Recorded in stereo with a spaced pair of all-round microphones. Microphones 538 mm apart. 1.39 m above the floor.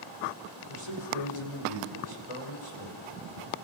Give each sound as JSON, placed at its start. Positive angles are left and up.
{"t": 0.7, "sound": "a man speaking", "side_deg": 75, "distance_m": 5.5}